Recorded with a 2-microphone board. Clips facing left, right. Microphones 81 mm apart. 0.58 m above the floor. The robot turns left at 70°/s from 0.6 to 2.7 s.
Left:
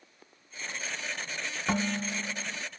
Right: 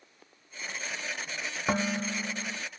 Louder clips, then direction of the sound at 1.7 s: Right 1 dB; 25° right.